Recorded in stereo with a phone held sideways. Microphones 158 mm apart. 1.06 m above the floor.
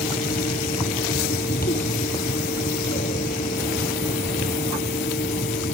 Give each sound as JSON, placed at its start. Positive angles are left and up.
{"t": 0.0, "sound": "a fan", "side_deg": 75}